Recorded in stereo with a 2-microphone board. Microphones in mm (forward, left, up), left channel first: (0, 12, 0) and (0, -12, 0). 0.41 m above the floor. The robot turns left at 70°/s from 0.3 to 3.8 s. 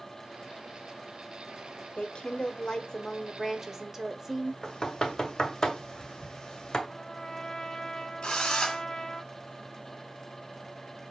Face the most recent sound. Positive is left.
turn(degrees=45)  # may be behind; listen again after turning